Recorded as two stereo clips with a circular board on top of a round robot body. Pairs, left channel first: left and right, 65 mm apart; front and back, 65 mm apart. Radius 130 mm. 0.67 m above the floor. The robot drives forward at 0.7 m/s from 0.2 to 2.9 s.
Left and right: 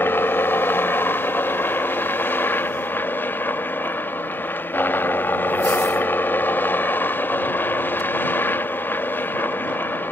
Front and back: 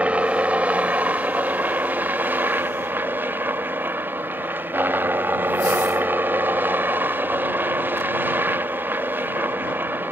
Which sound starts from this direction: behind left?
A helicopter, at 0.0 s.